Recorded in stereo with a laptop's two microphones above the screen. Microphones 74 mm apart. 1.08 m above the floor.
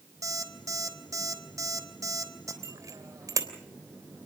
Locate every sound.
0.2 s an alarm clock: 50° right (ahead or behind), 3.5 m
2.6 s a bicycle bell: 50° right (ahead or behind), 3.5 m